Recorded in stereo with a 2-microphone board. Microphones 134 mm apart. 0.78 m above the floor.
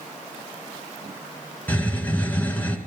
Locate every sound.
1.7 s a hiss: 10° left (ahead or behind), 1.9 m